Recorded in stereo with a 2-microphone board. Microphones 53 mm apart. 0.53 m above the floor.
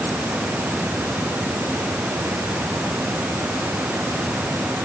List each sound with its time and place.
Only background noise.